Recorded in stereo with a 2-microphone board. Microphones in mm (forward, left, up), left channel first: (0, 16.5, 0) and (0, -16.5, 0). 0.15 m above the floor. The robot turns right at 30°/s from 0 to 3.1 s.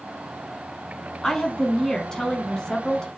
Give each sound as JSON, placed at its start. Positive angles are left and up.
{"t": 1.2, "sound": "a woman speaking", "side_deg": 15, "distance_m": 1.1}